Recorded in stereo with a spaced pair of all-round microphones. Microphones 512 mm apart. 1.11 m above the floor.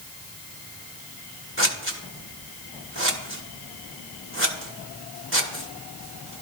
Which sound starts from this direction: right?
Scissors, at 1.6 s.